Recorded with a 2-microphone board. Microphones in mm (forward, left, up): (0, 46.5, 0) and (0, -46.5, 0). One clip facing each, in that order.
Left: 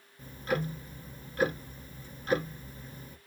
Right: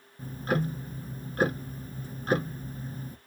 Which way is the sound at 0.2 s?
40° right (ahead or behind).